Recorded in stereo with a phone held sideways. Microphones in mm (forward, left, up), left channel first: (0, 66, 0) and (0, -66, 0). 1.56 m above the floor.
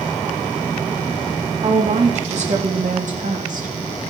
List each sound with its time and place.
1.6 s a woman speaking: 50° right (ahead or behind), 4 m; by 3.7 s 70° right (ahead or behind), 3.5 m